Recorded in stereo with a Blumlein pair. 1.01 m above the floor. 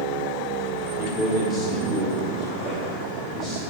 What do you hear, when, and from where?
1.0 s a man speaking: 25° left, 2 m; by 3.6 s 15° left, 5 m